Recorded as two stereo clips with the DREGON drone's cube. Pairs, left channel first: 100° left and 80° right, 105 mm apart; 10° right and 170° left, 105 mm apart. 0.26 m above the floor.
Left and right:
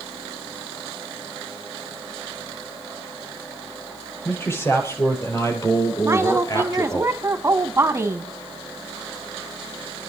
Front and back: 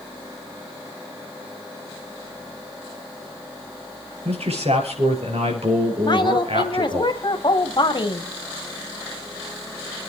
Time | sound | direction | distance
4.2 | a man speaking | 165° left | 6.5 m
6.0 | a woman speaking | 25° right | 1.9 m